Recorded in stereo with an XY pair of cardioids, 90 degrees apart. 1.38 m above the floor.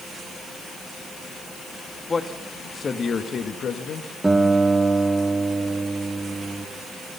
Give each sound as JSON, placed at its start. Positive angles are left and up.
{"t": 2.1, "sound": "a man speaking", "azimuth_deg": 30, "distance_m": 2.0}
{"t": 4.2, "sound": "a guitar", "azimuth_deg": -15, "distance_m": 2.0}